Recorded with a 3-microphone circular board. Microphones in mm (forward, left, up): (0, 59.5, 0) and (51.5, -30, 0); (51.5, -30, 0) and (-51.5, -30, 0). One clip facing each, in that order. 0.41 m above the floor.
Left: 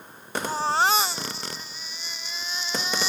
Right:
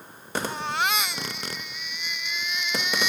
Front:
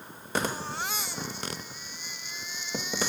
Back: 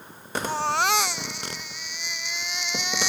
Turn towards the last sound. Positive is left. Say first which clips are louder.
# left 6 dB, back 10 dB
turn(degrees=175)